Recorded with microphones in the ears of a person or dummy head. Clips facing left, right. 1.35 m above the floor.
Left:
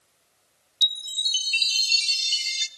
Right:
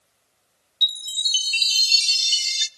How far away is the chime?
About 0.5 m.